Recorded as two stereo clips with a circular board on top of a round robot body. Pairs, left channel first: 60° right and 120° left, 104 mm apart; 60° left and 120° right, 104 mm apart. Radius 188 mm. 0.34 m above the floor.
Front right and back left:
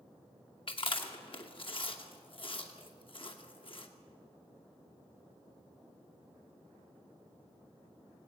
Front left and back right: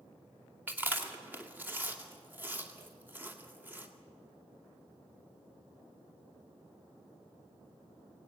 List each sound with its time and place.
0.7 s chewing: 50° right, 2.5 m